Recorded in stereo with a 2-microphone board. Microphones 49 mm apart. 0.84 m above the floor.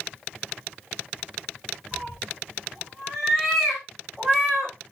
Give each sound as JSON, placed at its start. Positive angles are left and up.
{"t": 1.9, "sound": "a cat meowing", "side_deg": 0, "distance_m": 5.0}